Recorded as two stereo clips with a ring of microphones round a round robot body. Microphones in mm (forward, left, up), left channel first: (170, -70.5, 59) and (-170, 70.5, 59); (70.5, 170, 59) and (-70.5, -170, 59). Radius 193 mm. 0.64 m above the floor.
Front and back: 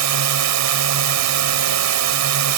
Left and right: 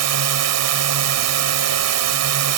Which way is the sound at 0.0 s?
160° right.